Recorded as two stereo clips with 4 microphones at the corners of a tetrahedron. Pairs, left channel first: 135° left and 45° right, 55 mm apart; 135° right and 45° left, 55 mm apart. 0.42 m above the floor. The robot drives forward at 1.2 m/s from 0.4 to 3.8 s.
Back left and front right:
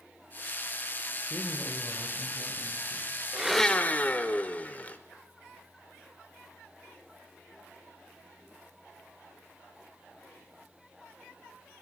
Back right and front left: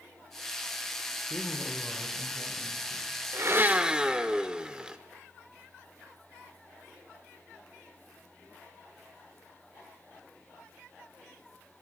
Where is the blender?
30° left, 0.7 m; by 5.0 s 110° left, 0.5 m.